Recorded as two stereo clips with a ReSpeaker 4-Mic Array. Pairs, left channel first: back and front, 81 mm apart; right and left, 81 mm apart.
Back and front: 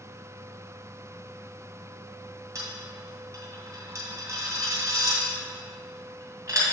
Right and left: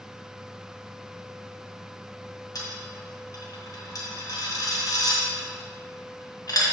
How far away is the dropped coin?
About 2.0 m.